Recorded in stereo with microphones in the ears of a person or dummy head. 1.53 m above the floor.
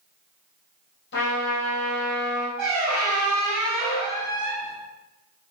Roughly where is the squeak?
Centre.